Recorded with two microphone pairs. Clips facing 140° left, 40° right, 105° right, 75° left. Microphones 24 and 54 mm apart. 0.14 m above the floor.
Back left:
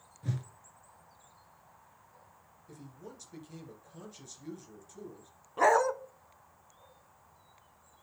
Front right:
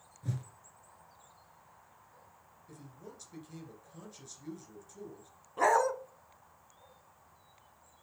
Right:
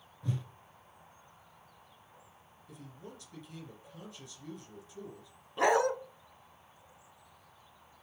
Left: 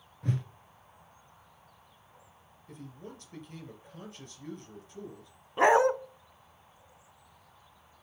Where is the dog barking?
75° left, 0.6 m.